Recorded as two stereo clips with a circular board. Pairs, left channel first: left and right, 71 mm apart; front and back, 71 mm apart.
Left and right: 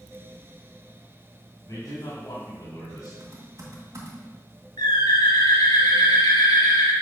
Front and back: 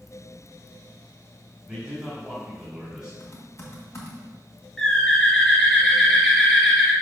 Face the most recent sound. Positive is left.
turn(degrees=80)